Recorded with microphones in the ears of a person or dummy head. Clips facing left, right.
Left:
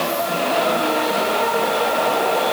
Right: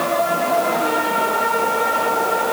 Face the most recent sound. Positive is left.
No sound to turn to.